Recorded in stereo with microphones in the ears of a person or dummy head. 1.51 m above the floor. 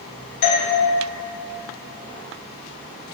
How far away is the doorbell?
About 1.2 m.